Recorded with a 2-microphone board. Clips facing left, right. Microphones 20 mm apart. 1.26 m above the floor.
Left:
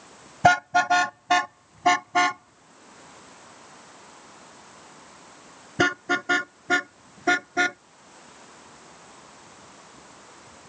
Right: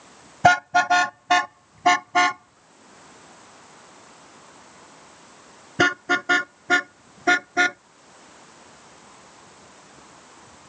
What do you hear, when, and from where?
0.4 s a car horn: 5° right (ahead or behind); by 7.8 s 10° right (ahead or behind)